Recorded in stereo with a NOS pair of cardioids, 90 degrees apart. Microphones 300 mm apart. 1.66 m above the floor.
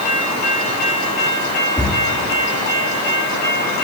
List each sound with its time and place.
1.8 s a cupboard door: 5° left, 2.5 m